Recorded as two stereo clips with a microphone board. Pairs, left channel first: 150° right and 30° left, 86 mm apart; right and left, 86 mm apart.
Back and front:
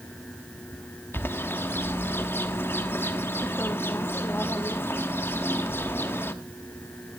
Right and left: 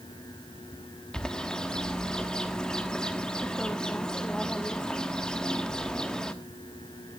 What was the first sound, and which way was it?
A bird, 165° right.